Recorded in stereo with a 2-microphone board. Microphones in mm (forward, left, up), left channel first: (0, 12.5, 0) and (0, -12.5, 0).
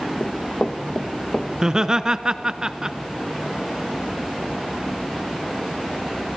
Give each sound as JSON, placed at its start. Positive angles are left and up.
{"t": 0.2, "sound": "running footsteps", "side_deg": 45, "distance_m": 1.8}
{"t": 1.6, "sound": "laughter", "side_deg": -30, "distance_m": 1.2}